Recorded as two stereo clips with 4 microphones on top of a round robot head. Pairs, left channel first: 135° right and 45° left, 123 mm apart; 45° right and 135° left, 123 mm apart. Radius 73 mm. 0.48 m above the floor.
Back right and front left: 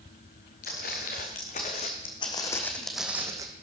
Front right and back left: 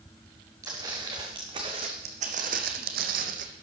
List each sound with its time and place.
0.6 s footsteps: 160° right, 2.5 m; by 3.5 s 110° left, 1.2 m